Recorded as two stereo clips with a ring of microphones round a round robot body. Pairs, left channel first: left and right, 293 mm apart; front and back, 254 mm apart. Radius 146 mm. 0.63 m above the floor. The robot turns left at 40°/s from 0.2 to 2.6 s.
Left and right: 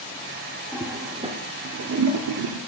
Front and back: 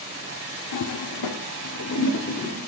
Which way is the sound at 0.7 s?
5° left.